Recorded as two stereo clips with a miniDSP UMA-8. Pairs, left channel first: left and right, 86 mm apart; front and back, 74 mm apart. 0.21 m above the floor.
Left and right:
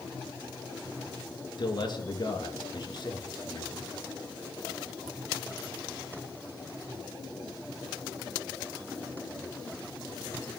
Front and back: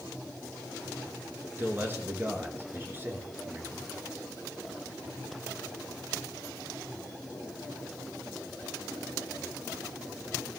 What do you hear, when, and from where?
1.6 s a man speaking: 120° left, 3.5 m